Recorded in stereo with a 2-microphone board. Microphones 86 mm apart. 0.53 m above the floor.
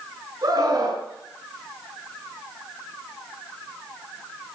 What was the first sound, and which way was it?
A scream, 50° right (ahead or behind).